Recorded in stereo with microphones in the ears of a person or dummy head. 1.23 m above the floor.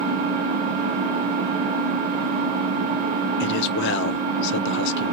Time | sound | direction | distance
0.0 | an engine running | 40° right (ahead or behind) | 1.8 m
3.4 | a man speaking | 65° left (ahead or behind) | 0.6 m